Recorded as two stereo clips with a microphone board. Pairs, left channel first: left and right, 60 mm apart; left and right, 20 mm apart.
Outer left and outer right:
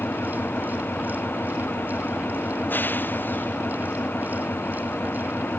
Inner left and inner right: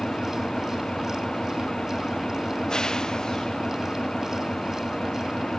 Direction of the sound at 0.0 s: 35° left (ahead or behind).